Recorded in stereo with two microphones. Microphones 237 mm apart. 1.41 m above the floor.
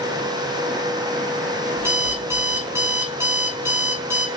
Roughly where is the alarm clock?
Centre.